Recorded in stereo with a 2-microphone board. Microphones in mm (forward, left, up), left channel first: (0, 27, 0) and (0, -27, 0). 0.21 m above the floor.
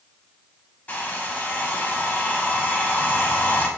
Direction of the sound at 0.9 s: 30° left (ahead or behind).